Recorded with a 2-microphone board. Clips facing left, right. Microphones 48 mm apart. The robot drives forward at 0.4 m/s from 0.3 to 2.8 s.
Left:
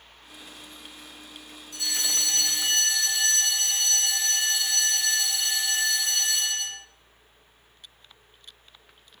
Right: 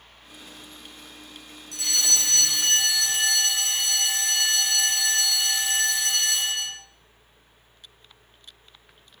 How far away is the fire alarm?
About 10 m.